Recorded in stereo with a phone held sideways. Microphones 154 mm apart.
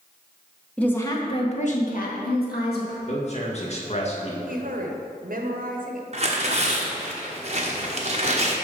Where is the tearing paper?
45° right (ahead or behind), 1.1 m.